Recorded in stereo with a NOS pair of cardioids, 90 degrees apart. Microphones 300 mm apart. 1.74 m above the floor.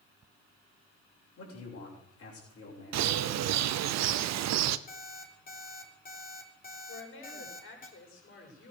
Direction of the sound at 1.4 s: 55° left.